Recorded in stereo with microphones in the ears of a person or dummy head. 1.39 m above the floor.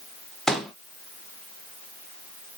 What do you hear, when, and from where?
0.5 s a pop: 5° right (ahead or behind), 0.5 m